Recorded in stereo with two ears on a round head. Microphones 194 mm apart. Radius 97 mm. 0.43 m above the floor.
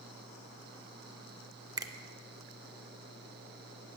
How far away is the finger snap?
About 0.5 m.